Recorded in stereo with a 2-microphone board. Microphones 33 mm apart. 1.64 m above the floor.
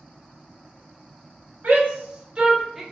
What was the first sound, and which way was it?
A shout, 50° right (ahead or behind).